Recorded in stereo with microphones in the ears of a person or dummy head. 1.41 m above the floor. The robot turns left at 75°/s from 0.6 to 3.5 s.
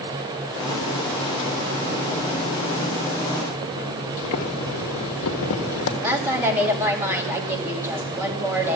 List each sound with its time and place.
4.2 s boiling: 65° left (ahead or behind), 1.5 m
6.0 s a woman speaking: 10° right (ahead or behind), 2.5 m